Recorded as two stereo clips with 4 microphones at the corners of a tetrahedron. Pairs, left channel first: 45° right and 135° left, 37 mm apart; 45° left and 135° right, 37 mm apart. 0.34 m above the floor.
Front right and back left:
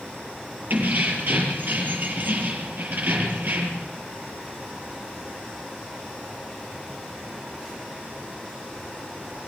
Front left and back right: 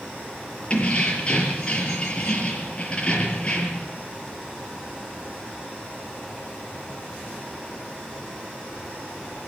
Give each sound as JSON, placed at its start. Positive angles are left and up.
{"t": 0.7, "sound": "keys jangling", "azimuth_deg": 105, "distance_m": 5.5}